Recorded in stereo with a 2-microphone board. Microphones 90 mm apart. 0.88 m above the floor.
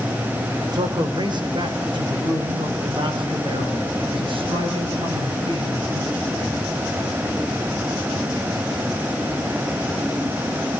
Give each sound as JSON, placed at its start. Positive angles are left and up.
{"t": 0.7, "sound": "a man speaking", "side_deg": -50, "distance_m": 3.5}